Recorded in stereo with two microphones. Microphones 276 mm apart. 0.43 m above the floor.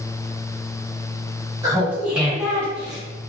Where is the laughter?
10° right (ahead or behind), 1.5 m; by 3.0 s 10° left (ahead or behind), 1.4 m.